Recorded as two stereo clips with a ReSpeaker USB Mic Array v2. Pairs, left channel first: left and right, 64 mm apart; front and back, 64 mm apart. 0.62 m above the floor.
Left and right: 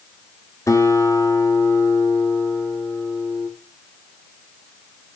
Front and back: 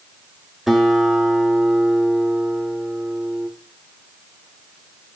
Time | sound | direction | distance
0.7 | a guitar | 95° left | 2 m